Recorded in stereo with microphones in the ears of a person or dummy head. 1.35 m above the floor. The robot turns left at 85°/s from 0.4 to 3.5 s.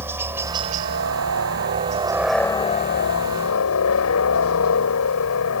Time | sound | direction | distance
0.0 | a helicopter | 15° right | ?